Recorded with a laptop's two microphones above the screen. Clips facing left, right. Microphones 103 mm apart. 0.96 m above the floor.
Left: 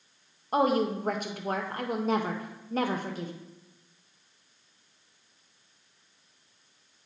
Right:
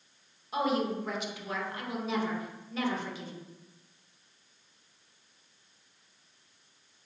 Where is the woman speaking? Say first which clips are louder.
Left 5 dB; 45° left (ahead or behind), 0.6 m.